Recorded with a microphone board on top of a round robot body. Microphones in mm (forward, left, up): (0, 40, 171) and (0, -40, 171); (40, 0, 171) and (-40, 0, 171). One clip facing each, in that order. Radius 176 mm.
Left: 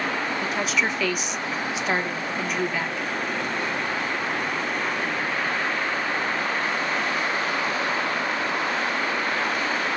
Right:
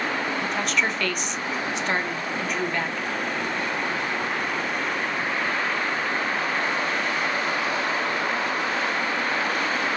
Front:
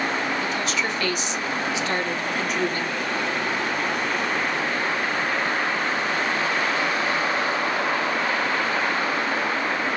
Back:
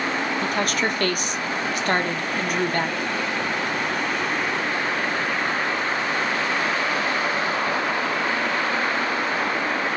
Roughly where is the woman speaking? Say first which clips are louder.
Even, back 2 dB; behind.